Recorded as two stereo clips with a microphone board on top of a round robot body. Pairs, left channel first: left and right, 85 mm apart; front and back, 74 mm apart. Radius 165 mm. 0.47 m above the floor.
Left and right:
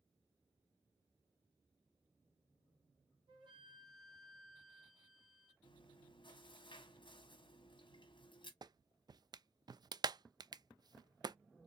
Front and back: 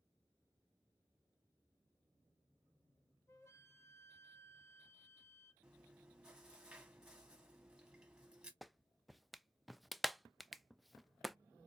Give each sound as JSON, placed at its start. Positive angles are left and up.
{"t": 3.3, "sound": "a flute", "azimuth_deg": -55, "distance_m": 1.4}
{"t": 5.6, "sound": "chewing", "azimuth_deg": 100, "distance_m": 1.7}
{"t": 8.6, "sound": "a clap", "azimuth_deg": -90, "distance_m": 0.5}